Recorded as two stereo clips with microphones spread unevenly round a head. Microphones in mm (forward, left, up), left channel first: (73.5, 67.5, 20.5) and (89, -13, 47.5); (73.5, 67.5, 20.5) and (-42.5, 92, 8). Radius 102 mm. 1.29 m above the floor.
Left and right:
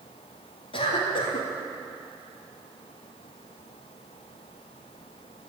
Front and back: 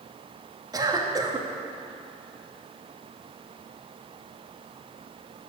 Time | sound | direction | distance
0.7 | a cough | 110° left | 1.7 m